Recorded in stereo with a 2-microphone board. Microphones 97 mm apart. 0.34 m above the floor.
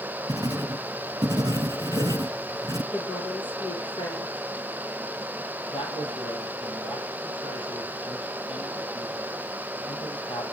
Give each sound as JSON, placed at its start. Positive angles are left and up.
{"t": 0.3, "sound": "writing", "side_deg": -40, "distance_m": 1.6}
{"t": 2.9, "sound": "a woman speaking", "side_deg": 60, "distance_m": 8.0}
{"t": 5.7, "sound": "a man speaking", "side_deg": 65, "distance_m": 8.0}